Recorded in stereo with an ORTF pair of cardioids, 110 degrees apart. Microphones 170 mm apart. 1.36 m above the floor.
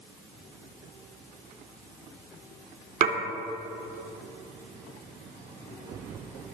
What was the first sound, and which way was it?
Dishes clattering, 45° right.